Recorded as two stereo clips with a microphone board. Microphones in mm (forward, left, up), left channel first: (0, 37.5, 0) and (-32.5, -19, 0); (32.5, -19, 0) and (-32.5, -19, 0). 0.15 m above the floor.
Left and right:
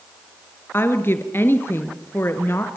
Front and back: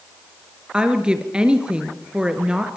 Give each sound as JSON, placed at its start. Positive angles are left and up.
{"t": 0.7, "sound": "a woman speaking", "azimuth_deg": 105, "distance_m": 3.0}